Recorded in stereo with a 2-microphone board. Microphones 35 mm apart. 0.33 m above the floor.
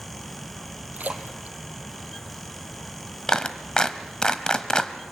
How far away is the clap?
About 1.1 m.